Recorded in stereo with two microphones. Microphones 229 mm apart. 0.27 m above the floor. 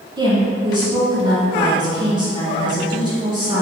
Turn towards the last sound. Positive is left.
turn(degrees=-20)  # may be behind; listen again after turning